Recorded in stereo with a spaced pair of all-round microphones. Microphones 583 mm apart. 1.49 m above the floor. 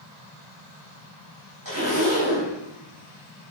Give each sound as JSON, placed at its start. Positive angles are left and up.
{"t": 1.6, "sound": "a zipper", "side_deg": -35, "distance_m": 5.5}